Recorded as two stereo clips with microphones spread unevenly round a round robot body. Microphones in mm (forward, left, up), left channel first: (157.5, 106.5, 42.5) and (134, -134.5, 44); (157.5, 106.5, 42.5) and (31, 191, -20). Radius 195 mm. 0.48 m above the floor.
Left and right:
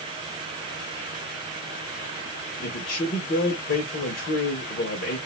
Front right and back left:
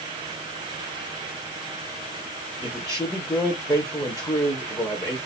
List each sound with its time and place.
2.6 s a man speaking: 45° left, 1.6 m